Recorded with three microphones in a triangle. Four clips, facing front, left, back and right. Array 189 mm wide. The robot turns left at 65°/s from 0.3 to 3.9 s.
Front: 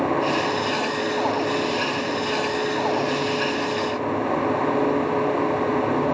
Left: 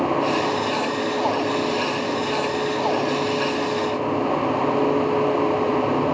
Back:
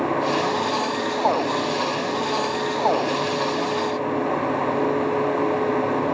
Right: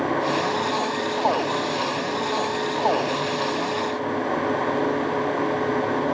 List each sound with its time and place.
Only background noise.